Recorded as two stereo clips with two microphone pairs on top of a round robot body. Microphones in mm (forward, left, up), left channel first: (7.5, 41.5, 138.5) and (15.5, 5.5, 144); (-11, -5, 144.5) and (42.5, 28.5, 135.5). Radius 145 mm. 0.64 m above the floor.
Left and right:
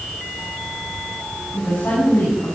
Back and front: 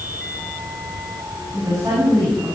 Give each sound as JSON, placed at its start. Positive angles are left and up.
{"t": 1.5, "sound": "a woman speaking", "azimuth_deg": 80, "distance_m": 5.5}